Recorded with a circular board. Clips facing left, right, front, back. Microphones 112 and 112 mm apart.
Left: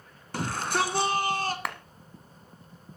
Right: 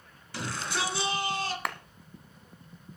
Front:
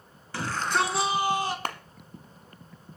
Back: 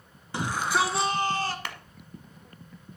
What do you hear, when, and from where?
0.3 s a shout: 115° left, 2 m; by 1.6 s 65° left, 2 m
1.6 s a clap: straight ahead, 1.1 m